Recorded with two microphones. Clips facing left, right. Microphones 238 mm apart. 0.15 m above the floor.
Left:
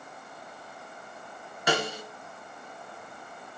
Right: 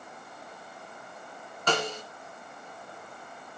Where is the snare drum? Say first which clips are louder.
Left 1 dB; 10° left (ahead or behind), 1.7 m.